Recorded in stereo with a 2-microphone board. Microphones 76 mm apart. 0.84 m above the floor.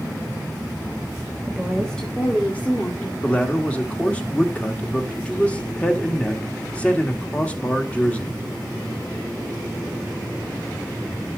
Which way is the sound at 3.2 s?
15° left (ahead or behind).